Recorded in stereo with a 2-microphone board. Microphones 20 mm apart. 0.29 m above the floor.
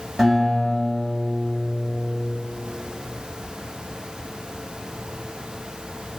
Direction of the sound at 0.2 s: 15° left (ahead or behind).